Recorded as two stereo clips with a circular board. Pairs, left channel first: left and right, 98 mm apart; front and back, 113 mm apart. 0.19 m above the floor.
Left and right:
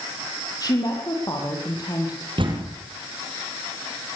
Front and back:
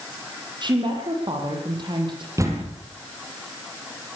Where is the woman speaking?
135° left, 7.5 m.